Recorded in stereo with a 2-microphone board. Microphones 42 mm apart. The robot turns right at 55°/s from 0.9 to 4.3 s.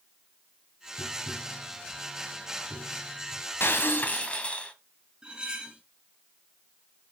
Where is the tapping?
35° left (ahead or behind), 4.5 m; by 3.4 s 75° right (ahead or behind), 4.5 m.